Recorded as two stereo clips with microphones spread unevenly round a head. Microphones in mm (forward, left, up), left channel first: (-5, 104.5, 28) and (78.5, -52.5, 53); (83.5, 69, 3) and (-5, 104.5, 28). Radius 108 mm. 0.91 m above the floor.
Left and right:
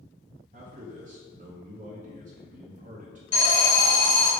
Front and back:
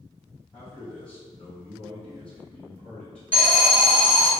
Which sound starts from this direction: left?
An alarm, at 3.3 s.